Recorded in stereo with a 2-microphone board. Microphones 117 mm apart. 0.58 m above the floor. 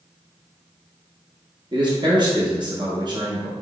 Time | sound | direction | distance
1.7 | a man speaking | 40° right (ahead or behind) | 0.7 m